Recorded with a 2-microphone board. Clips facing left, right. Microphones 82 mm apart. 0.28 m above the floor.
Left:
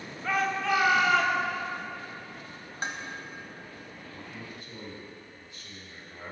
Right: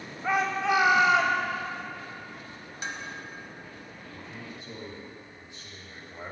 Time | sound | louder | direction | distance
0.2 | a shout | right 2 dB | 20° right (ahead or behind) | 1.1 m
2.8 | dishes clattering | left 2 dB | 40° left (ahead or behind) | 1.1 m
4.1 | a man speaking | right 1 dB | 25° right (ahead or behind) | 1.7 m